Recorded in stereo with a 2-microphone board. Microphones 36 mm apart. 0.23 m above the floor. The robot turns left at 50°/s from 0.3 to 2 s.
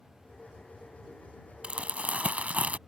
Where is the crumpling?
35° right (ahead or behind); by 2.8 s 45° right (ahead or behind).